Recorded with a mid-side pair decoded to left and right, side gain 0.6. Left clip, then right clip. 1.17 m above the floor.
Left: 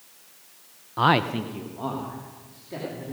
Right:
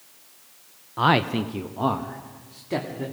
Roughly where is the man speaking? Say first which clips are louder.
Even; ahead.